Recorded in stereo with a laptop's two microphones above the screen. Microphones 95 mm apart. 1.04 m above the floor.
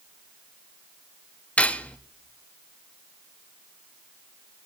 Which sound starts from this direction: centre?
Cutlery clinking, at 1.6 s.